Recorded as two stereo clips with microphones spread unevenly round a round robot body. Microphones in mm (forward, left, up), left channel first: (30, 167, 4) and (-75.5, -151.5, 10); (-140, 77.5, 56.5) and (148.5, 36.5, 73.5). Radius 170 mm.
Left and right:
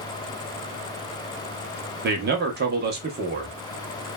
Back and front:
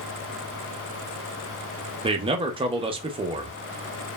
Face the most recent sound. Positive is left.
turn(degrees=-70)